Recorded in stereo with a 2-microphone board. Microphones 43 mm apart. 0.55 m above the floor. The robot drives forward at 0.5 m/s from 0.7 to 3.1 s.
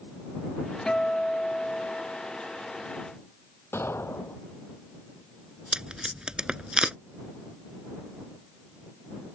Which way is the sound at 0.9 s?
20° left (ahead or behind).